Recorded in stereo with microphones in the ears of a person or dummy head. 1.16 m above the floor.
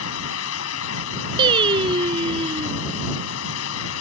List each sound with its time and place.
0.0 s a fan: 85° left
1.4 s singing: 30° right (ahead or behind)